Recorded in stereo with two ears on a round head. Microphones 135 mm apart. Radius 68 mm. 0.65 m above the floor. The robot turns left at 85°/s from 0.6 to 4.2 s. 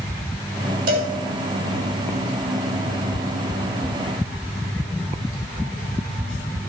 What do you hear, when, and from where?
0.9 s a cowbell: 60° right (ahead or behind), 3 m; by 1.1 s 80° right, 3 m